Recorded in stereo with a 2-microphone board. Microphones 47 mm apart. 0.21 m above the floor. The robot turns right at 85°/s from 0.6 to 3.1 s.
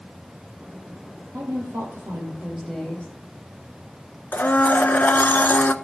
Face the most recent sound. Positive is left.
turn(degrees=40)  # may be behind; listen again after turning